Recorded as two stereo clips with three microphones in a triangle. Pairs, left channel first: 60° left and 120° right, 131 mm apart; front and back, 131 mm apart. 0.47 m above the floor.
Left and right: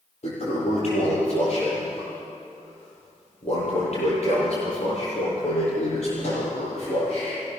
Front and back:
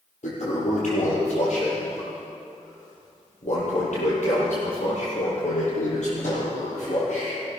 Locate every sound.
0.2 s a toilet flushing: 25° left, 8.5 m